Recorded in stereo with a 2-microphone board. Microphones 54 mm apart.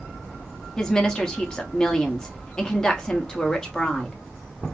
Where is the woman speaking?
15° left (ahead or behind), 0.8 m.